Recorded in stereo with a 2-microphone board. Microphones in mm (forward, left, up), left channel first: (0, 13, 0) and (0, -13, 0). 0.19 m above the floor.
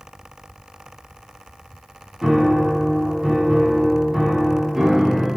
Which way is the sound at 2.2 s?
5° right (ahead or behind).